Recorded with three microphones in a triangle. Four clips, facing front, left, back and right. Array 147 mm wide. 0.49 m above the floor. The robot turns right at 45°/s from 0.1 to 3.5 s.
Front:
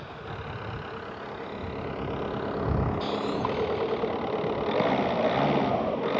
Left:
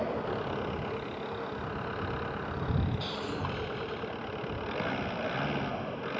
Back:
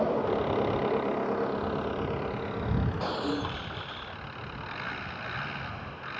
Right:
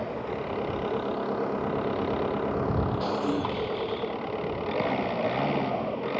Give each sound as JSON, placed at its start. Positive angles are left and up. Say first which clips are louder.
{"t": 0.0, "sound": "an engine running", "louder": "right 1 dB, back 12 dB", "azimuth_deg": 180}
{"t": 3.0, "sound": "breaking glass", "louder": "right 8 dB, front 3 dB", "azimuth_deg": -120}